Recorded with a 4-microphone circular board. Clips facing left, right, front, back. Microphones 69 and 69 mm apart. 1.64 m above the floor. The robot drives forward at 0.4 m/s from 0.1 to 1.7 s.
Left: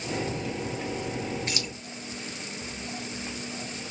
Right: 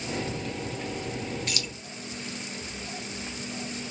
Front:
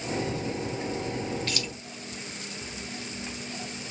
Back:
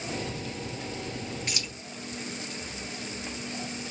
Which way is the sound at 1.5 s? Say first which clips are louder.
Left 1 dB, front 3 dB; 125° left.